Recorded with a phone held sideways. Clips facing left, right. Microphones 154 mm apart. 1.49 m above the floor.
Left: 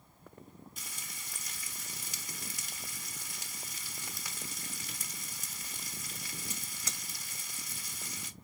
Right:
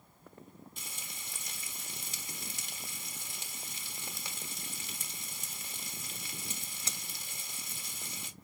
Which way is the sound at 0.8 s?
25° right (ahead or behind).